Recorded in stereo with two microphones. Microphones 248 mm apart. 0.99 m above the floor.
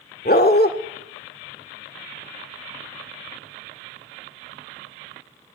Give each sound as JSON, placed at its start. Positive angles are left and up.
{"t": 0.2, "sound": "a dog barking", "side_deg": 40, "distance_m": 0.7}